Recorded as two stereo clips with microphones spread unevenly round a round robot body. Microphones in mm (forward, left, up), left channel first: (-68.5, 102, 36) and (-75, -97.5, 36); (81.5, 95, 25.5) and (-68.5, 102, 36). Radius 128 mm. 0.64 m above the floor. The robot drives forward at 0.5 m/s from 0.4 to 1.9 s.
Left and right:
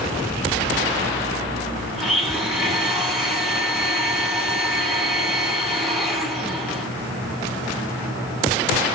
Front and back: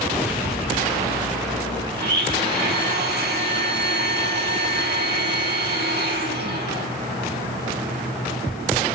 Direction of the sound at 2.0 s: Straight behind.